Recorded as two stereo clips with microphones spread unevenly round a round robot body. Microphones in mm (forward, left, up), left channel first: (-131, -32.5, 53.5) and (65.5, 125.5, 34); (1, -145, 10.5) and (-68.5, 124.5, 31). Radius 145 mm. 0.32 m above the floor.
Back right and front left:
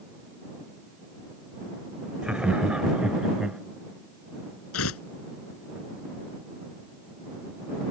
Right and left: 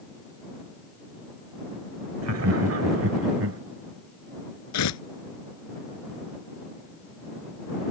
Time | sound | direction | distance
2.2 | laughter | 120° left | ?
4.7 | tearing paper | 100° right | ?